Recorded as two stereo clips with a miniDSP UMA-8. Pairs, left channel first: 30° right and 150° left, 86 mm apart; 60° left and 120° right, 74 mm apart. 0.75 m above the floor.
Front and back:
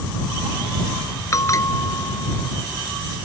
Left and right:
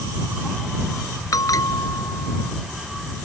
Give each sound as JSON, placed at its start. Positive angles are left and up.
{"t": 1.3, "sound": "a bell", "azimuth_deg": 25}